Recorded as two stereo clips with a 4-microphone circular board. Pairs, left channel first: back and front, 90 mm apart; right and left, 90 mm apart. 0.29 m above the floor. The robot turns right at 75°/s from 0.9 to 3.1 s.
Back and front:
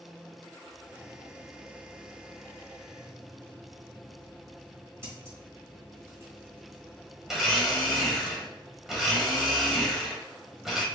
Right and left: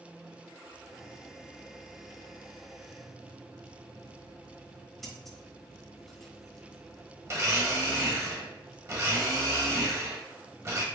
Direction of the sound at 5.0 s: 5° right.